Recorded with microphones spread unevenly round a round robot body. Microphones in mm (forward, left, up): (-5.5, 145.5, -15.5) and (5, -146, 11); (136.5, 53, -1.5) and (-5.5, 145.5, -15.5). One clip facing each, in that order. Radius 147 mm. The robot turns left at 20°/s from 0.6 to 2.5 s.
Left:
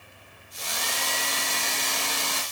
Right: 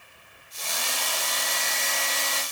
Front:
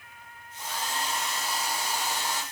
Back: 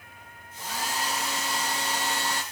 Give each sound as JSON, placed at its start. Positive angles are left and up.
{"t": 0.6, "sound": "a hair dryer", "azimuth_deg": 165, "distance_m": 3.0}